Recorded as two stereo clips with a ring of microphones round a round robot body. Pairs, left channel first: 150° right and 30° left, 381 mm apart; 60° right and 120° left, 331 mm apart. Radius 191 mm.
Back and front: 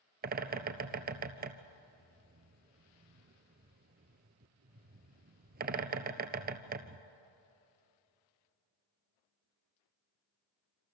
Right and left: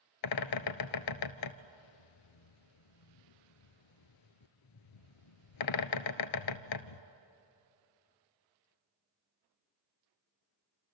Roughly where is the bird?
Ahead right.